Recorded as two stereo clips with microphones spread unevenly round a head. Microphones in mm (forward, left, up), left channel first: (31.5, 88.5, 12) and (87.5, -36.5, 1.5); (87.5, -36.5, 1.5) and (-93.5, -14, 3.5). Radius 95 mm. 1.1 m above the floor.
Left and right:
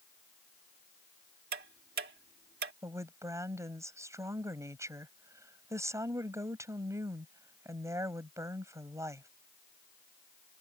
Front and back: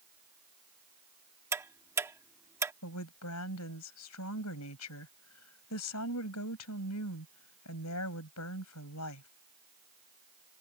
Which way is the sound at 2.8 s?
5° left.